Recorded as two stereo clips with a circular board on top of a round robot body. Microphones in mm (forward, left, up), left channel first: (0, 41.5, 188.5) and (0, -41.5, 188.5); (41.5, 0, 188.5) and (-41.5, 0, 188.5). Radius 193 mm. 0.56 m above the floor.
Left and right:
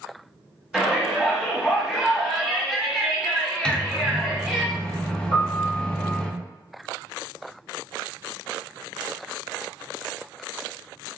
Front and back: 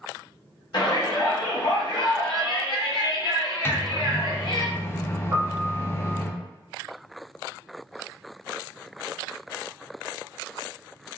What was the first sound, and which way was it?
A shout, 5° right.